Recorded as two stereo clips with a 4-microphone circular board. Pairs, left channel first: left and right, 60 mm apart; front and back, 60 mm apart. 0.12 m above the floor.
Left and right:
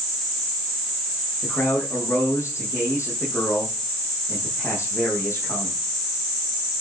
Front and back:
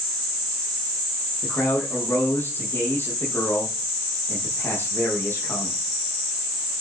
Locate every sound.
1.4 s a man speaking: 50° left, 6 m